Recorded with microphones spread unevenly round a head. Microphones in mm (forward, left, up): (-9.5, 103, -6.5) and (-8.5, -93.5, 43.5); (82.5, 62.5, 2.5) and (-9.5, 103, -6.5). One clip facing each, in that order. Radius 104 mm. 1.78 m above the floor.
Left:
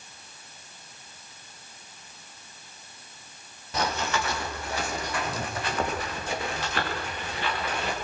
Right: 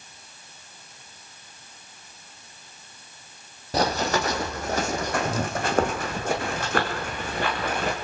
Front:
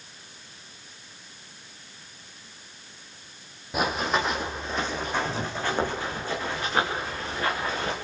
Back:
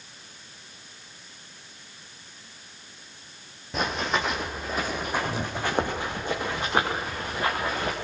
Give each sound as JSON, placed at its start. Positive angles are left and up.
{"t": 3.7, "sound": "running footsteps", "azimuth_deg": -100, "distance_m": 2.5}